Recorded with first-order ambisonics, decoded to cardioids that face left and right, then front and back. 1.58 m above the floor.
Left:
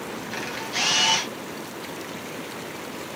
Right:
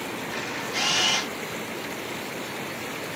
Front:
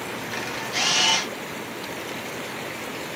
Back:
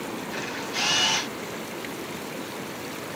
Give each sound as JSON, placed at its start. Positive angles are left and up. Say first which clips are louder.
{"t": 0.3, "sound": "a camera shutter", "louder": "left 2 dB, front 3 dB", "azimuth_deg": 45, "distance_m": 0.9}